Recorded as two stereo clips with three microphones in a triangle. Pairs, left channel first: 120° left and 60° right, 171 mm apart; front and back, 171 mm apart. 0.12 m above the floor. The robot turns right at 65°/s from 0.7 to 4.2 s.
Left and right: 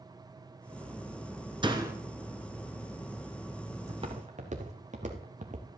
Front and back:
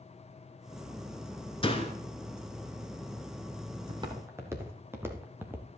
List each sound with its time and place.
1.6 s a door slam: 25° right, 1.1 m; by 1.9 s 5° right, 1.1 m
3.9 s footsteps: 125° right, 2.5 m; by 5.7 s 100° right, 1.6 m